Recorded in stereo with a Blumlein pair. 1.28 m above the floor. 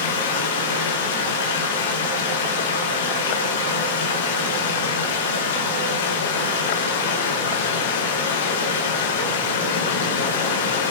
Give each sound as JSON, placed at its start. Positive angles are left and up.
{"t": 0.0, "sound": "running water", "azimuth_deg": 65, "distance_m": 4.0}